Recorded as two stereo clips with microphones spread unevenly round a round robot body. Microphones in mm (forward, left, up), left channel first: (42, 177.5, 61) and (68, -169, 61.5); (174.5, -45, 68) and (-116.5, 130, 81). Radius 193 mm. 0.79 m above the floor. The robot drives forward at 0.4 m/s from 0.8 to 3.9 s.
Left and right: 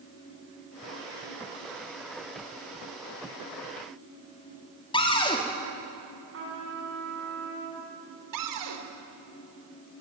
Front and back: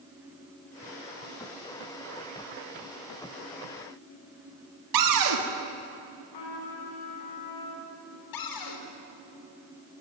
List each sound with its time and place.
4.9 s a cupboard door: 170° left, 2 m
6.3 s a trumpet: 30° right, 6 m
8.3 s a cupboard door: 55° right, 3 m